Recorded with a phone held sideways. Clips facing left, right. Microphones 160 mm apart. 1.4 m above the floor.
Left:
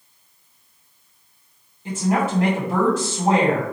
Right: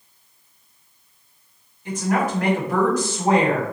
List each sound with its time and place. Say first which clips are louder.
1.9 s a woman speaking: left 1 dB; 25° left (ahead or behind), 1.7 m